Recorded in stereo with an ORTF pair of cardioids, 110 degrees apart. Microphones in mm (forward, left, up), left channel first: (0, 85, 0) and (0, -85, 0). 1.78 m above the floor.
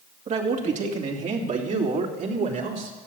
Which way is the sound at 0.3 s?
45° right.